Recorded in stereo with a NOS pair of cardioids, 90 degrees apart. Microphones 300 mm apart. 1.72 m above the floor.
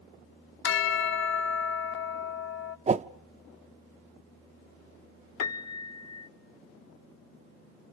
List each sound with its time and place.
0.6 s a bell: 40° left, 0.8 m
2.9 s a whoosh: 25° right, 0.6 m
5.4 s a piano: 60° left, 1.0 m